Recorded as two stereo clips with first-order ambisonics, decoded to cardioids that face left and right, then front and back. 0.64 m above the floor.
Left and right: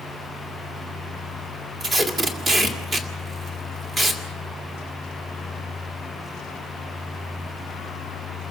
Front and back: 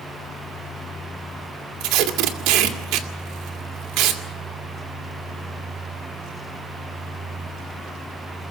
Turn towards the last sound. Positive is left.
turn(degrees=-160)